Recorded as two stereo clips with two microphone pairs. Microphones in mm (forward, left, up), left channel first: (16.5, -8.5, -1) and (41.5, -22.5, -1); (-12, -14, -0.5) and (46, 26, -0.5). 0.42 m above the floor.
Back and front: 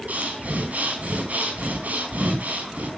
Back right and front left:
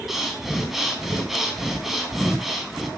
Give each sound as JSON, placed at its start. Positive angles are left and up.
{"t": 0.1, "sound": "breathing", "azimuth_deg": -50, "distance_m": 3.5}